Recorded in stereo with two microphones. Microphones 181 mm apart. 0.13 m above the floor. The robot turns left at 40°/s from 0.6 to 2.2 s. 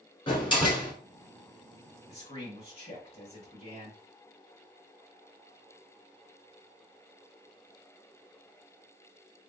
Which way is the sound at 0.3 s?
30° left (ahead or behind).